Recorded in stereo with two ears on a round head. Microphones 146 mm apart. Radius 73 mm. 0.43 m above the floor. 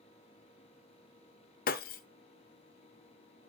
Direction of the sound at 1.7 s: 55° left (ahead or behind).